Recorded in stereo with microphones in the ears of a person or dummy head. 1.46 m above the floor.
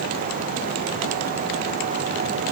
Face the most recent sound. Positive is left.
No sound to turn to.